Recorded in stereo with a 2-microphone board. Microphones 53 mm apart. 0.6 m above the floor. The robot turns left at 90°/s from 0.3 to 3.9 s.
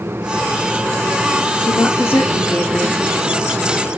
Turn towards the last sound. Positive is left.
turn(degrees=-90)